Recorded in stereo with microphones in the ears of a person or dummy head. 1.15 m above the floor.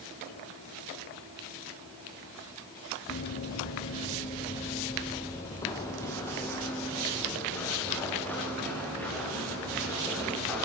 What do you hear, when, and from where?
3.1 s running footsteps: 35° left (ahead or behind), 1.3 m; by 10.7 s 5° left (ahead or behind), 6.5 m